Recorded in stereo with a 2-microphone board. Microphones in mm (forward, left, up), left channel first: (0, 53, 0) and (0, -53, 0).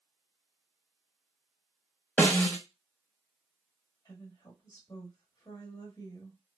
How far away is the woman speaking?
About 1.4 m.